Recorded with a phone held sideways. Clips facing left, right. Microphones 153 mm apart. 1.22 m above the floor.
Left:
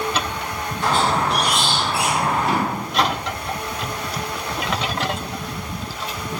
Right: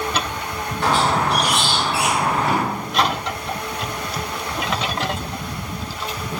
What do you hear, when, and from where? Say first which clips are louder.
0.8 s a squeak: right 1 dB; 70° right (ahead or behind), 2.0 m
2.4 s a drawer: even; 70° right (ahead or behind), 3 m